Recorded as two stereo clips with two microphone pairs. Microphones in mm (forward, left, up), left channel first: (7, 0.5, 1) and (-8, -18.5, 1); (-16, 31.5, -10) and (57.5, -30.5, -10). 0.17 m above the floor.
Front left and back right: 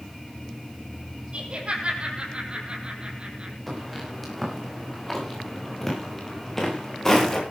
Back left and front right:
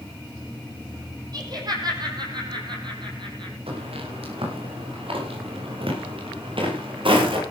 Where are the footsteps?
30° right, 9.5 m; by 7.4 s 15° right, 8 m.